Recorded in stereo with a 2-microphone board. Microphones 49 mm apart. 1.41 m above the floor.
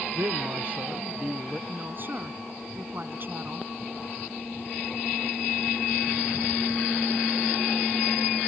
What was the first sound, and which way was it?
A man speaking, 60° right (ahead or behind).